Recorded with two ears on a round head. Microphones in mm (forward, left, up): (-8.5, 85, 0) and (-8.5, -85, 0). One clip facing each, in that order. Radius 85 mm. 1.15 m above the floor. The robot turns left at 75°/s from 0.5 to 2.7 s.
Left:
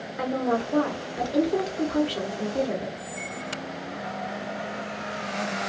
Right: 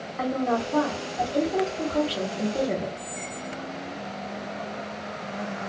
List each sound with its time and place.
0.2 s a woman speaking: 145° left, 1.0 m; by 2.9 s 20° right, 1.0 m
3.0 s a squeak: 25° right (ahead or behind), 0.6 m